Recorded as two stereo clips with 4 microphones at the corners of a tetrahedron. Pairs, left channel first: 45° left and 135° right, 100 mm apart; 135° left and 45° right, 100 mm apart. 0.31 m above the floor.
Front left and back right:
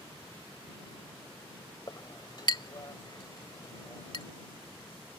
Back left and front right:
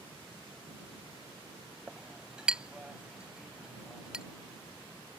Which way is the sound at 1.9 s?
35° left.